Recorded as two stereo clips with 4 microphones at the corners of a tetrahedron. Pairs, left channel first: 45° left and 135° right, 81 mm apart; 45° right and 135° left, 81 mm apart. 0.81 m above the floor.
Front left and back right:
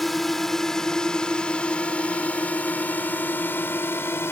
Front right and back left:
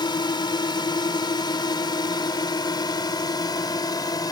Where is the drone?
45° right; by 4.3 s 15° right.